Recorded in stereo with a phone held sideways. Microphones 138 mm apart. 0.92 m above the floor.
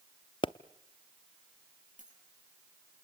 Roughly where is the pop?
Left.